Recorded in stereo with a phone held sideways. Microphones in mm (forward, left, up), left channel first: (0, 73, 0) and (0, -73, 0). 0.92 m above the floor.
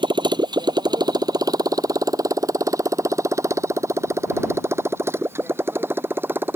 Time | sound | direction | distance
0.0 | a motorcycle | 35° right (ahead or behind) | ?